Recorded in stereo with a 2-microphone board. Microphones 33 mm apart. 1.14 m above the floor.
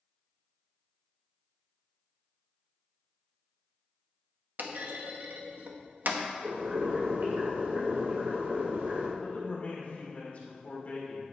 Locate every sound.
4.6 s a clunk: 65° right (ahead or behind), 0.9 m
6.4 s boiling: 80° right, 2.5 m
9.2 s a man speaking: 45° left (ahead or behind), 3 m